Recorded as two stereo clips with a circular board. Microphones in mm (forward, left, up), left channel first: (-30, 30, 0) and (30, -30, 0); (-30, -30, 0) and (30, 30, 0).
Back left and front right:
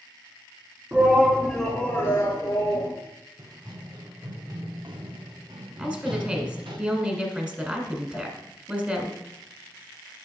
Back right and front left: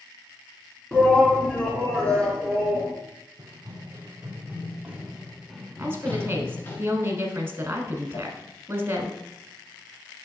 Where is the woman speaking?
20° left, 1.2 m.